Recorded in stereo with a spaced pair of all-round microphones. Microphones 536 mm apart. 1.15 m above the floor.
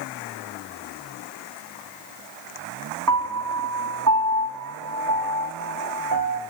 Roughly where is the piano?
Right.